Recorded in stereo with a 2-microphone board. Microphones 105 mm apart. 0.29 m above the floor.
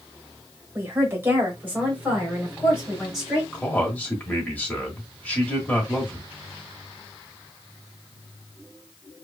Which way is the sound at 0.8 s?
25° right (ahead or behind).